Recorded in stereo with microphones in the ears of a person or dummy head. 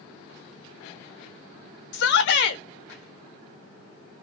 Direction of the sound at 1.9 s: 70° left (ahead or behind).